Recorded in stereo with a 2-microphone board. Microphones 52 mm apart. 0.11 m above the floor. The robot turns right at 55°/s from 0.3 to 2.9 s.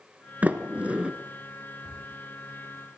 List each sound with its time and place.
0.4 s a sliding door: 30° right (ahead or behind), 1.3 m; by 1.1 s 20° right (ahead or behind), 1.3 m
1.8 s a cupboard door: 75° right (ahead or behind), 8.5 m; by 2.0 s 60° right (ahead or behind), 8.5 m